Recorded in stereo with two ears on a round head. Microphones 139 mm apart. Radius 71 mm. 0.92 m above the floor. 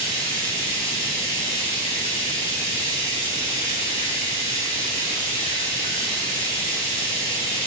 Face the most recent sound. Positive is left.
turn(degrees=35)  # may be behind; listen again after turning